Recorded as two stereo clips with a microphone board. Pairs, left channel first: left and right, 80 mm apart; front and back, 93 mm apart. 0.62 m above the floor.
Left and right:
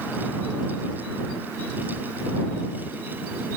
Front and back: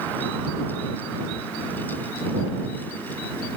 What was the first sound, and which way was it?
Only background noise.